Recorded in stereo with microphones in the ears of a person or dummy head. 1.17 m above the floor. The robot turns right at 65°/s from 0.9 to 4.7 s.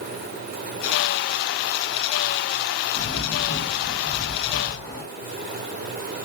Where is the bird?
50° left, 1.1 m; by 5.0 s 165° left, 1.1 m.